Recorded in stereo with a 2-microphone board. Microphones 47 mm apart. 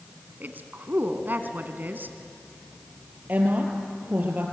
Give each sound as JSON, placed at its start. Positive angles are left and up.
{"t": 0.4, "sound": "a woman speaking", "side_deg": -45, "distance_m": 1.8}
{"t": 3.3, "sound": "a woman speaking", "side_deg": -35, "distance_m": 4.5}